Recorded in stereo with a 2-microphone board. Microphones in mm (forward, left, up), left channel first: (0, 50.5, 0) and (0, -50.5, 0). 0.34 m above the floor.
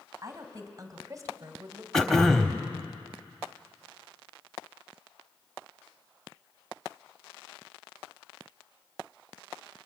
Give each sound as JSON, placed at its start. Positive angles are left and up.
{"t": 0.2, "sound": "a woman speaking", "side_deg": -35, "distance_m": 2.5}
{"t": 1.9, "sound": "throat clearing", "side_deg": 5, "distance_m": 1.3}